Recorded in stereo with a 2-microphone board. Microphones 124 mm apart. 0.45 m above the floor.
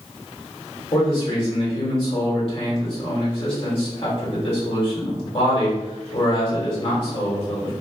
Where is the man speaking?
45° left (ahead or behind), 2.0 m.